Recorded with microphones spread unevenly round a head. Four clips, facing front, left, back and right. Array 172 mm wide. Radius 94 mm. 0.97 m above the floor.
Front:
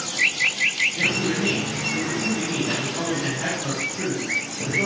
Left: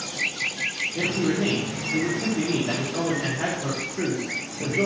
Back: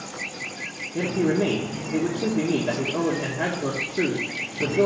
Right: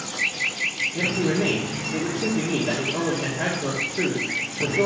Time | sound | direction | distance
0.9 | a man speaking | 170° right | 1.9 m